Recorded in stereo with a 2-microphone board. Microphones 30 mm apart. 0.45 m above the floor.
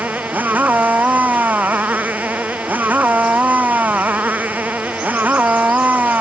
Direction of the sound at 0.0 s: 75° right (ahead or behind).